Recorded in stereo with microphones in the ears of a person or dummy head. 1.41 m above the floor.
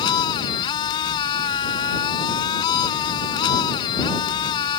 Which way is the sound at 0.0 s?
25° left (ahead or behind).